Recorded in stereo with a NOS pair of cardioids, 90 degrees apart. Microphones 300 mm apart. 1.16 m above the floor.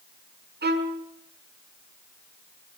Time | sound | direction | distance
0.6 | a violin | 35° right | 6 m